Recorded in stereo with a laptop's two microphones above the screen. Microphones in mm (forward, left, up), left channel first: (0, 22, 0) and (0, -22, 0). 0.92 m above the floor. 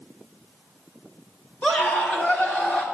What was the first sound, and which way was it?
A scream, 35° left (ahead or behind).